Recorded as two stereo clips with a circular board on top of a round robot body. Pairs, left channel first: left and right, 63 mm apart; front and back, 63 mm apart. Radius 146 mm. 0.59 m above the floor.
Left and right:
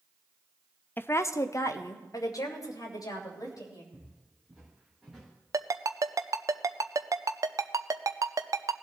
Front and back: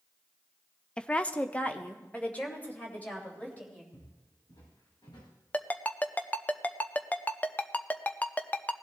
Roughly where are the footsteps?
Ahead.